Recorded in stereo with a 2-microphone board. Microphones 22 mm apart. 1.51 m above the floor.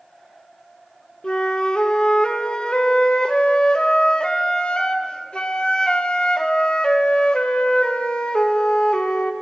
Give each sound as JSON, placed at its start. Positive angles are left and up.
{"t": 1.2, "sound": "a flute", "side_deg": 50, "distance_m": 0.6}